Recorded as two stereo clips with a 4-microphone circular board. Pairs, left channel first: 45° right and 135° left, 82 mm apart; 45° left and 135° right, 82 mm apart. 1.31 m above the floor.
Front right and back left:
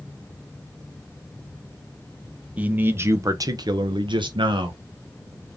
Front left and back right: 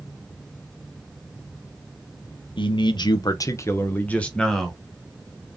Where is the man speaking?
60° left, 0.9 m; by 4.8 s 135° left, 1.1 m.